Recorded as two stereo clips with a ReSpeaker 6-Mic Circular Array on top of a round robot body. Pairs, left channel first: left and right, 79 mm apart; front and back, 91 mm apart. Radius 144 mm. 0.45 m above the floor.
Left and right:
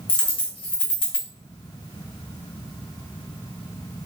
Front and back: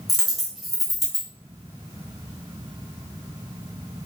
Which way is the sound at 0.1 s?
90° left.